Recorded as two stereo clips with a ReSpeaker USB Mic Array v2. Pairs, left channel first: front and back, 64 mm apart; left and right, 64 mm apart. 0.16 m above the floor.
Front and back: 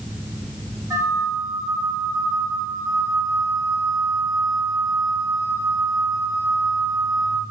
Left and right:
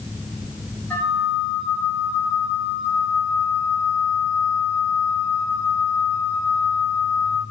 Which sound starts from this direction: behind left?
A flute, at 0.9 s.